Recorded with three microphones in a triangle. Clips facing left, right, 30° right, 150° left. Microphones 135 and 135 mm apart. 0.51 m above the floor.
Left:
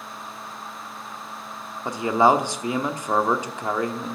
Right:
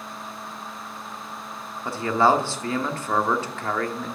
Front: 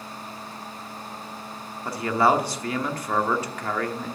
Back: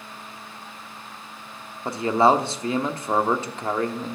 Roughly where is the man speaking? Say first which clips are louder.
Left 2 dB, back 3 dB; behind left.